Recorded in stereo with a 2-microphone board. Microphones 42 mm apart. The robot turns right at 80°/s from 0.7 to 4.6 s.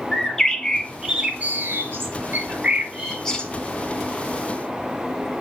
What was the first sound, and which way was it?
A bird, 165° left.